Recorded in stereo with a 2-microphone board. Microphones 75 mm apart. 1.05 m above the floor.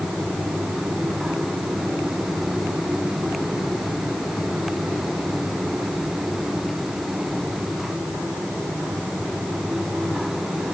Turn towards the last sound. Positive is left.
No sound to turn to.